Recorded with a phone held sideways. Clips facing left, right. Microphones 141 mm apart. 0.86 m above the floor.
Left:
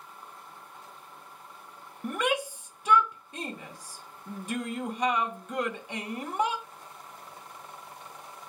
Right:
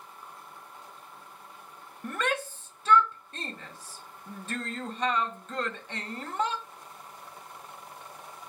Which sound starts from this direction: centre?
A shout, at 2.0 s.